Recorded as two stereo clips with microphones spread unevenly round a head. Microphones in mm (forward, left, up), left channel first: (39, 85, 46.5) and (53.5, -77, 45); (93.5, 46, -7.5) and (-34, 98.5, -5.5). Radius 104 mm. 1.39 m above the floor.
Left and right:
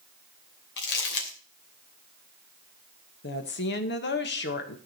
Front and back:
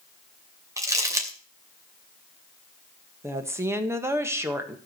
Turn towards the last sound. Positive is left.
turn(degrees=85)